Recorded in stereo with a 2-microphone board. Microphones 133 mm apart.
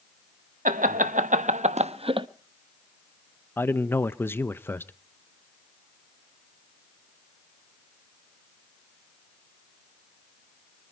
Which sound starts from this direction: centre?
A man speaking, at 3.6 s.